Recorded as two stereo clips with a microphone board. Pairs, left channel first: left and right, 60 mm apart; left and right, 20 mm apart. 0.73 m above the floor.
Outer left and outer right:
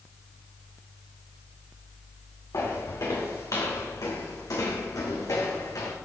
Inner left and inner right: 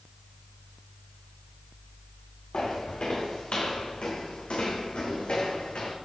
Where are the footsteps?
60° left (ahead or behind), 3.5 m; by 6.0 s 75° left (ahead or behind), 3 m.